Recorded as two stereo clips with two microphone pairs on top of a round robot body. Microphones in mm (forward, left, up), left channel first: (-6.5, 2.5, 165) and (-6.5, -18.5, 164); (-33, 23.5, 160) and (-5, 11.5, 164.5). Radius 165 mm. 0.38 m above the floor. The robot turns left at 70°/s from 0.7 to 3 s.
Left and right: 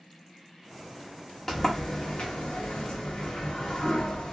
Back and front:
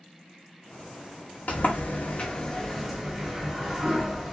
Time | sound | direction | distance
1.5 | a sliding door | 160° left | 0.9 m